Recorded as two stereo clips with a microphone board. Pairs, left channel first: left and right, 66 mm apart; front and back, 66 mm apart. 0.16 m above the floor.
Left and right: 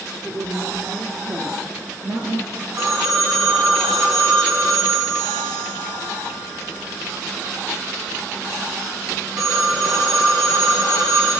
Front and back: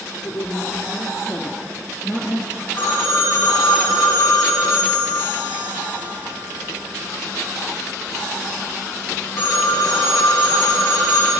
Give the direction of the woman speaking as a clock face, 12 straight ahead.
1 o'clock.